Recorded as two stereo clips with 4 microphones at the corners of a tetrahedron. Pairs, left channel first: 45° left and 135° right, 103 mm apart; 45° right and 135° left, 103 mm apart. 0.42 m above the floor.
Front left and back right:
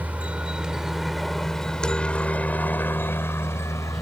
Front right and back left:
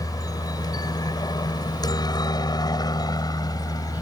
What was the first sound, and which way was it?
A helicopter, 70° right.